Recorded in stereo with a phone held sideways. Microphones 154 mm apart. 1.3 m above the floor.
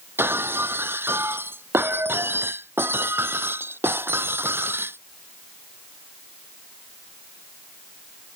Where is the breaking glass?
15° right (ahead or behind).